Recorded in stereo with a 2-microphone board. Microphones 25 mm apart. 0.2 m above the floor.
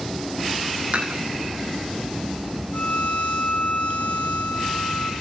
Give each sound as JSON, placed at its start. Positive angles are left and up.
{"t": 0.9, "sound": "dishes clattering", "side_deg": -40, "distance_m": 7.5}
{"t": 2.7, "sound": "a violin", "side_deg": 80, "distance_m": 6.0}